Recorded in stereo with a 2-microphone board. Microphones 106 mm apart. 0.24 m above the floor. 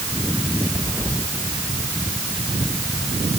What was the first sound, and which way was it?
Only background noise.